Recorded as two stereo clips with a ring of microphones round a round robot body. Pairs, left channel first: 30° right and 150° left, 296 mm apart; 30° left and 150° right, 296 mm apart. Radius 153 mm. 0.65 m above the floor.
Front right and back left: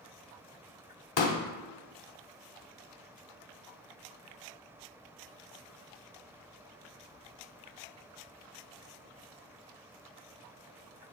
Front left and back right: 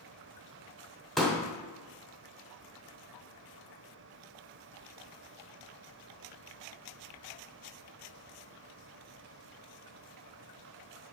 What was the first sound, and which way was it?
A pop, 60° right.